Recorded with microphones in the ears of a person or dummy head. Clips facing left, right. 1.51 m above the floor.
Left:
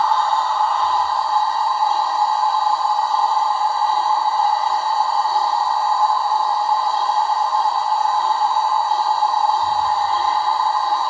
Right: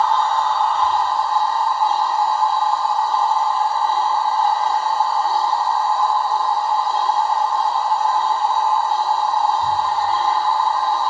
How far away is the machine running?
About 5.5 m.